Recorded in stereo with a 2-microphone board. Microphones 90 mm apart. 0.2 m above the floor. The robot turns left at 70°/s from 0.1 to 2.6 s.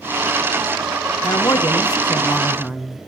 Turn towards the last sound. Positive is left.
turn(degrees=0)